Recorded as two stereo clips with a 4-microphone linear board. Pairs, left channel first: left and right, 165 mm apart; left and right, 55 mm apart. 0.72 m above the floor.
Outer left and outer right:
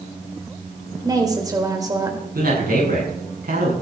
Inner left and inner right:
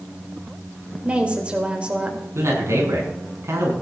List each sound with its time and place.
1.0 s a woman speaking: 20° right (ahead or behind), 3.5 m
2.4 s a man speaking: 65° right (ahead or behind), 7 m